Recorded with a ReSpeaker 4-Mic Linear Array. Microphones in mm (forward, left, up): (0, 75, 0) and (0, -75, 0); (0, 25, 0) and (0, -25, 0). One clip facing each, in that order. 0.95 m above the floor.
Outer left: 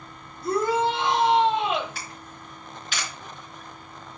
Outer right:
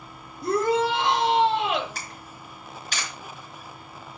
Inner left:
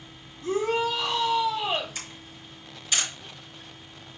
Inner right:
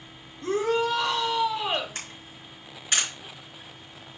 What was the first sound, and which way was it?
A shout, 70° right (ahead or behind).